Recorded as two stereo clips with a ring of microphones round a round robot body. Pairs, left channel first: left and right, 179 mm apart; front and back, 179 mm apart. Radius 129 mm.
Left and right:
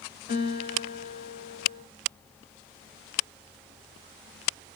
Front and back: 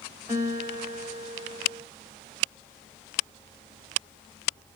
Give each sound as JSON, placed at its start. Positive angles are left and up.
{"t": 0.3, "sound": "a guitar", "azimuth_deg": 70, "distance_m": 3.0}